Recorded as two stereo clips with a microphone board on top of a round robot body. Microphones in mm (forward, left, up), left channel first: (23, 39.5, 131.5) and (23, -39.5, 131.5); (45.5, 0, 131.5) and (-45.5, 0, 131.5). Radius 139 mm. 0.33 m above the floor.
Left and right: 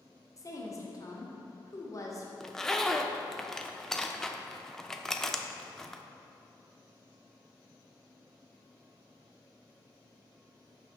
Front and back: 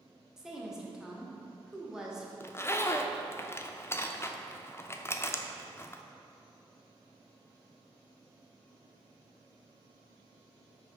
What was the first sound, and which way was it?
A woman speaking, 100° left.